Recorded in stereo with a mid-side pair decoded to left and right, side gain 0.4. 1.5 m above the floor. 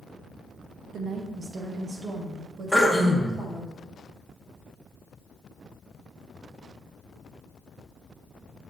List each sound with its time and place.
0.9 s a woman speaking: 65° right, 1.3 m; by 3.7 s 50° right, 3 m
2.7 s throat clearing: 5° right, 1.7 m